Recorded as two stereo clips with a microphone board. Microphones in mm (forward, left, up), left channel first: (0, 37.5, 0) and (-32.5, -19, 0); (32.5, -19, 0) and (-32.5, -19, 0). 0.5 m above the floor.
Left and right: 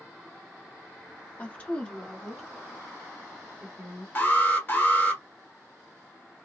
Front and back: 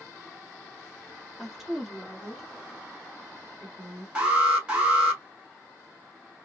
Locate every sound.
1.4 s a woman speaking: 100° left, 1.1 m; by 4.0 s 80° right, 1.3 m
4.2 s an alarm: 110° left, 1.1 m